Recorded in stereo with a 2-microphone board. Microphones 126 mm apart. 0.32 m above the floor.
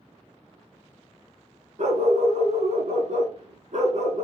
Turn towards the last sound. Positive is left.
turn(degrees=-70)  # may be behind; listen again after turning